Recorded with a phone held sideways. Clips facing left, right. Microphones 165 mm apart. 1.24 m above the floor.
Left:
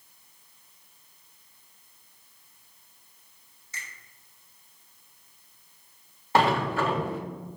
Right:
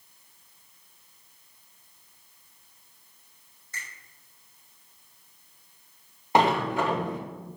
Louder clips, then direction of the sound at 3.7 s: Right 1 dB; 55° right (ahead or behind).